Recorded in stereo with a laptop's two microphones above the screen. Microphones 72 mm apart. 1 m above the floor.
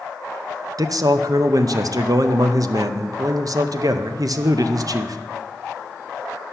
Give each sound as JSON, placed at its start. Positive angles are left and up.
{"t": 0.8, "sound": "a man speaking", "side_deg": -55, "distance_m": 0.6}